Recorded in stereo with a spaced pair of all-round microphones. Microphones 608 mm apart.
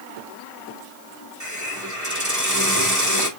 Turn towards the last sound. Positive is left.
turn(degrees=-30)  # may be behind; listen again after turning